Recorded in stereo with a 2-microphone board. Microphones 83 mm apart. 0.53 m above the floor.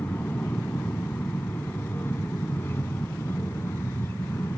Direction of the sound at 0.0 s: 20° left (ahead or behind).